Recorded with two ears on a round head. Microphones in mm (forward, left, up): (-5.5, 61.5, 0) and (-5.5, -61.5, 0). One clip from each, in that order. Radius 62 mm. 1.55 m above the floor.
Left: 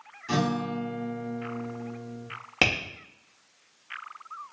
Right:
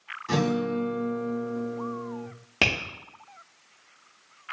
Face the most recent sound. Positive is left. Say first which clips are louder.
# even
turn(degrees=25)  # may be behind; listen again after turning